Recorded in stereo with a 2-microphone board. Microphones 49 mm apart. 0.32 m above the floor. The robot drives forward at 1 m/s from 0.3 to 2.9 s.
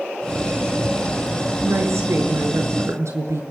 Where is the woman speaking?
65° right (ahead or behind), 5.5 m; by 3.4 s 75° right (ahead or behind), 5.5 m.